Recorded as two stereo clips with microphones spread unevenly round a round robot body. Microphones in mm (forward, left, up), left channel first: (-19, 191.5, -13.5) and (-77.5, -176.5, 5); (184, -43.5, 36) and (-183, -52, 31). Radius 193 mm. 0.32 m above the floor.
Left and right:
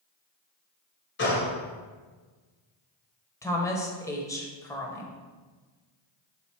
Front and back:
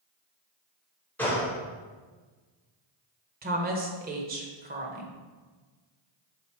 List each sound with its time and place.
1.2 s a gunshot: 85° left, 1.4 m
3.4 s a woman speaking: 150° left, 0.9 m